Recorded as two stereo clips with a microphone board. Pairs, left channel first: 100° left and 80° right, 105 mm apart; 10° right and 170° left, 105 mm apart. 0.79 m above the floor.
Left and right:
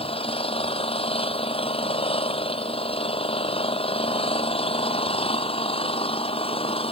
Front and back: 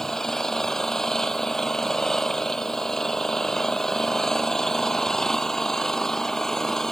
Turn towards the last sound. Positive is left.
turn(degrees=75)